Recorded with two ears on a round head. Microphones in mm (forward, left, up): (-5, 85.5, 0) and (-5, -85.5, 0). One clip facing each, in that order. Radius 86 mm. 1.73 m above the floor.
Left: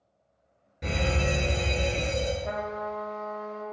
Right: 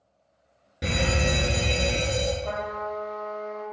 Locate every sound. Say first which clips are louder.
0.8 s a fire alarm: right 2 dB; 75° right (ahead or behind), 1.1 m
2.4 s a trumpet: right 1 dB; 25° left (ahead or behind), 1.0 m